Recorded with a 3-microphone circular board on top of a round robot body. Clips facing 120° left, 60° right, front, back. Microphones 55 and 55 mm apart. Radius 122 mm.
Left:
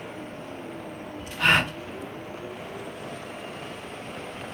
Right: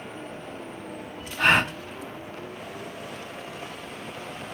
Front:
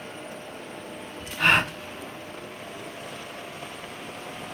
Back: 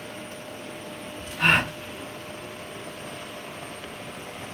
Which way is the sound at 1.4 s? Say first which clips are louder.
Right 1 dB, even; 100° right.